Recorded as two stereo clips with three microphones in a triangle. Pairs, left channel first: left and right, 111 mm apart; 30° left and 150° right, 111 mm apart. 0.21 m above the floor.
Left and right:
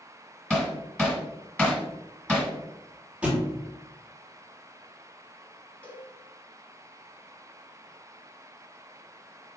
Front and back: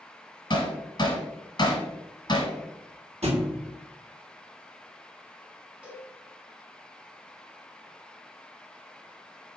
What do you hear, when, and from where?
0.5 s hammering: 10° left, 1.3 m
3.2 s a thud: 170° right, 1.3 m
5.8 s a cowbell: 150° left, 0.9 m